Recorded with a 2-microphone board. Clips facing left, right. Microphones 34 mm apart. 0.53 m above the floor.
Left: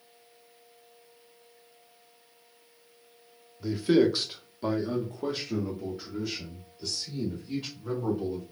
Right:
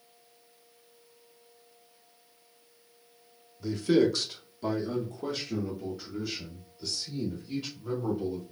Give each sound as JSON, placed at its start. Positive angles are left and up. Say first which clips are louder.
{"t": 3.6, "sound": "a man speaking", "louder": "left 1 dB", "side_deg": 10, "distance_m": 0.8}